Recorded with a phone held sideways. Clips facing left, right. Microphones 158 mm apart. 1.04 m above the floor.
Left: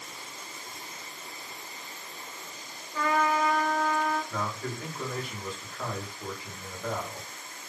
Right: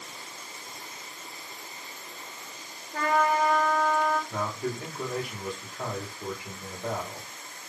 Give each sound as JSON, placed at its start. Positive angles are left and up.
{"t": 2.9, "sound": "a trumpet", "side_deg": -55, "distance_m": 0.9}
{"t": 4.3, "sound": "a man speaking", "side_deg": -20, "distance_m": 1.2}